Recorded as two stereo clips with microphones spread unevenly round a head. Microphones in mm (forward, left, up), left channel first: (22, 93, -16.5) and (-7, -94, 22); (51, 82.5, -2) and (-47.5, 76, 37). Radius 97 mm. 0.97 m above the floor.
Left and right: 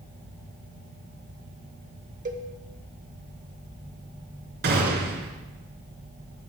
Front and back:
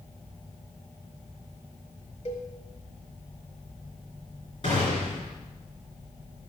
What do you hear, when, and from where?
2.2 s a cowbell: 65° right, 1.3 m
4.6 s a gunshot: 65° right, 3 m